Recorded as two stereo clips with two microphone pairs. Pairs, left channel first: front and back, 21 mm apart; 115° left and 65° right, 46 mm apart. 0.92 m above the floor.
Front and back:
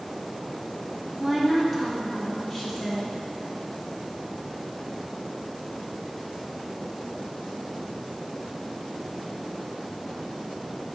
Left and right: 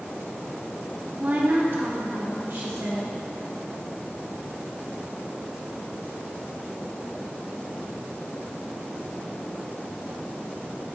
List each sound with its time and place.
1.2 s a woman speaking: 90° right, 0.8 m; by 3.1 s 70° right, 2.5 m